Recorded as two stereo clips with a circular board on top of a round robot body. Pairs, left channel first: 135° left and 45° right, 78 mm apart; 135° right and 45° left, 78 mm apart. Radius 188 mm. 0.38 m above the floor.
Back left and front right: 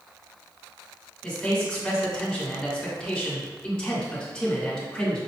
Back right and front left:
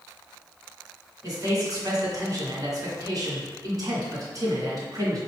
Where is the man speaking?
60° left, 2.0 m.